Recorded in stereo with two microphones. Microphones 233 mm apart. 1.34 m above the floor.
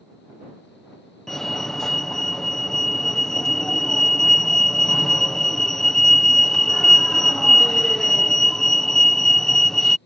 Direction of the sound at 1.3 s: Centre (ahead or behind).